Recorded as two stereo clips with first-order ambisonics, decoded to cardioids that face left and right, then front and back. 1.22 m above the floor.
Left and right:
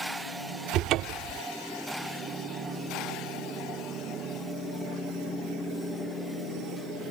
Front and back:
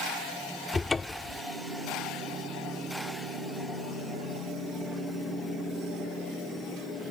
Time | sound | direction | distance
0.7 | a cupboard door | 75° right | ?